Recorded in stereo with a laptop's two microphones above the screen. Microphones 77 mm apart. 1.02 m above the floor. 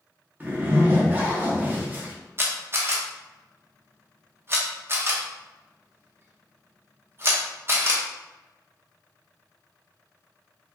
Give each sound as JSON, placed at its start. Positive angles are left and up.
{"t": 0.4, "sound": "a zipper", "side_deg": -25, "distance_m": 1.0}
{"t": 2.4, "sound": "a camera shutter", "side_deg": -35, "distance_m": 0.6}